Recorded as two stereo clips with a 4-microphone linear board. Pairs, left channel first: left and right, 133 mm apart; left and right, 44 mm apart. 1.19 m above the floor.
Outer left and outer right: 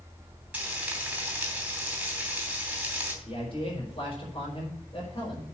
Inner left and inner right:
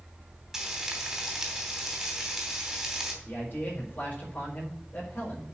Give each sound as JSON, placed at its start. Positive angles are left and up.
{"t": 0.5, "sound": "frying", "side_deg": -10, "distance_m": 3.0}
{"t": 3.2, "sound": "a man speaking", "side_deg": 45, "distance_m": 5.0}